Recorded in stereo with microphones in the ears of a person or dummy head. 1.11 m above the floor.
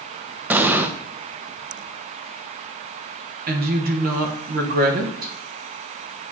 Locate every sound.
0.5 s an explosion: 10° right (ahead or behind), 0.5 m
3.5 s a woman speaking: 45° right (ahead or behind), 1.1 m